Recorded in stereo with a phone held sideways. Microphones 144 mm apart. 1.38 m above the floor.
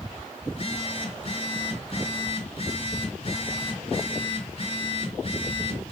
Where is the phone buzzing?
45° left (ahead or behind), 1.8 m.